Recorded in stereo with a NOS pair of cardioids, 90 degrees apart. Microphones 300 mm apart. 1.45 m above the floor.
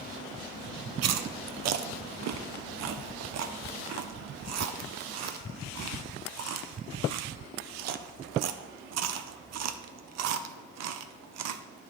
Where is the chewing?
60° right, 0.6 m.